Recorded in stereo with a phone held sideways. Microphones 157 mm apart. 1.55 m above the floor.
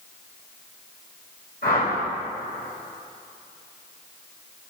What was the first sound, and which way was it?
A whoosh, 65° left (ahead or behind).